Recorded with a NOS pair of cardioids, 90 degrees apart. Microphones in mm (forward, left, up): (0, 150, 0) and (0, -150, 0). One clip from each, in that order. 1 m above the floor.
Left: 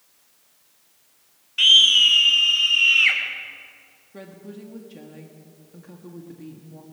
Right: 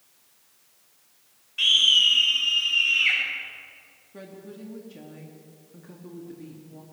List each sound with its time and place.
1.6 s a scream: 30° left, 3 m; by 3.2 s 45° left, 4.5 m
4.1 s a woman speaking: 10° left, 1.6 m